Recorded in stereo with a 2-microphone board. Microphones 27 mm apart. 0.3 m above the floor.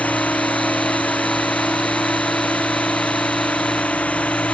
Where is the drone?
70° left (ahead or behind); by 4.5 s 60° left (ahead or behind).